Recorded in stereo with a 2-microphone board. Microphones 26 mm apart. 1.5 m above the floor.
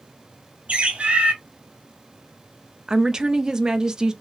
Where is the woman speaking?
25° right (ahead or behind), 0.6 m.